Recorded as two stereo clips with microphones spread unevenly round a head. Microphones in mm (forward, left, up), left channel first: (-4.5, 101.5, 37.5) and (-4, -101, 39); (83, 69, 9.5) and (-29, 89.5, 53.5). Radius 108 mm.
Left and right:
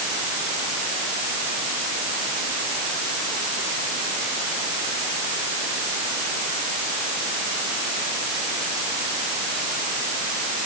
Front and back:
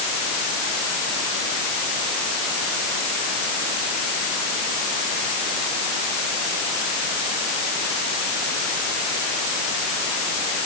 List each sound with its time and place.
Only background noise.